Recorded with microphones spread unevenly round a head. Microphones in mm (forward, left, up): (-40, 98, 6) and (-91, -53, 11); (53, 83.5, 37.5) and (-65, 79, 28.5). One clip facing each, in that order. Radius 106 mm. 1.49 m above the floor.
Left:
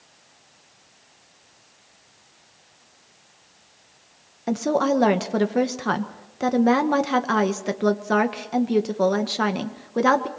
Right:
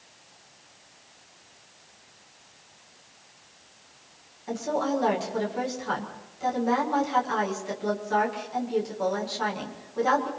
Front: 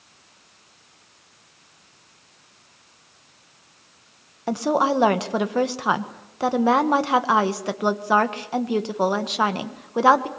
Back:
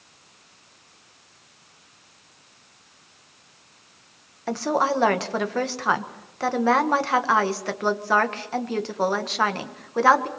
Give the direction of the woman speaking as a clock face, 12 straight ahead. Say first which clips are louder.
Left 6 dB, front 2 dB; 10 o'clock.